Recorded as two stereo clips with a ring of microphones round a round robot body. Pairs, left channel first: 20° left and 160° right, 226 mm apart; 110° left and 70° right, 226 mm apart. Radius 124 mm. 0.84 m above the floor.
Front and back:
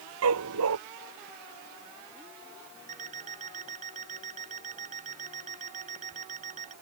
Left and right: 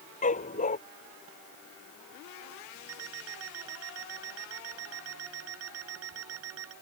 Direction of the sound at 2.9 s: 95° right.